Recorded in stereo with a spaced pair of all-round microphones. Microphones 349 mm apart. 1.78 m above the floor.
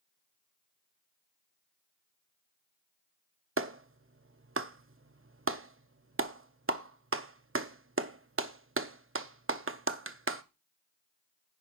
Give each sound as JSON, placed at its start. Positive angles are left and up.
{"t": 3.6, "sound": "a clap", "side_deg": -40, "distance_m": 0.5}